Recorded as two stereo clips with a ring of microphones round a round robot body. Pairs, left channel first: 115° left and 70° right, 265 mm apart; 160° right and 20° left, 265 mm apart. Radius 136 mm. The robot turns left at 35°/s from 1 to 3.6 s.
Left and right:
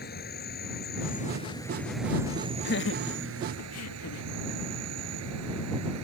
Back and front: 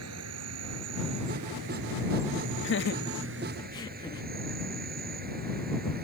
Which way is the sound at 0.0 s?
55° left.